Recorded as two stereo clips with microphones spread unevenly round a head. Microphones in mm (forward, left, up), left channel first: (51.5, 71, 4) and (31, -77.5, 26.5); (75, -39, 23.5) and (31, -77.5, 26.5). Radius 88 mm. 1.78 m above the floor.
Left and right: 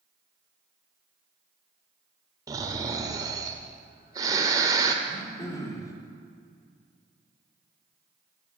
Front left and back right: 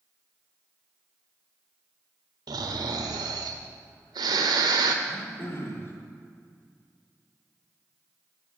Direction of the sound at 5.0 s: 15° left.